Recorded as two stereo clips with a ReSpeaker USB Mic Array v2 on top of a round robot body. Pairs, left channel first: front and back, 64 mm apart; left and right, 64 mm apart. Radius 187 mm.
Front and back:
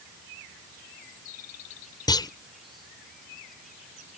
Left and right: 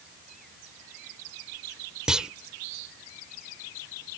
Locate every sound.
2.1 s a clunk: 10° right